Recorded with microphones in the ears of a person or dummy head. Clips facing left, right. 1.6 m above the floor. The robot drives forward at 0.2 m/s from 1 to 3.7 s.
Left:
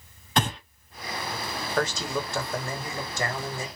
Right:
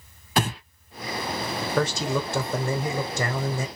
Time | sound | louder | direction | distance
0.4 | breathing | right 1 dB | 5° right (ahead or behind) | 0.5 m
1.8 | a man speaking | right 3 dB | 85° right | 0.7 m